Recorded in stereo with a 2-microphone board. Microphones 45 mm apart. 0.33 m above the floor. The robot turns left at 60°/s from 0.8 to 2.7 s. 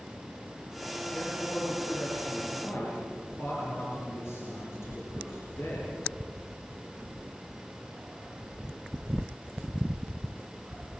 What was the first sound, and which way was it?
A man speaking, 165° left.